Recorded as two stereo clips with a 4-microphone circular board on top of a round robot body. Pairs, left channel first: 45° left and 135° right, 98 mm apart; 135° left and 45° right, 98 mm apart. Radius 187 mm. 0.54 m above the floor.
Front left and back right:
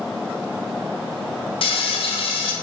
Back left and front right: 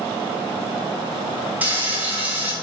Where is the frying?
30° left, 1.0 m.